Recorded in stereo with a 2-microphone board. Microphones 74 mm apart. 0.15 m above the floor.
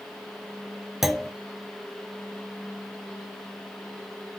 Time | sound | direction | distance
1.0 | a clunk | 5° right (ahead or behind) | 0.6 m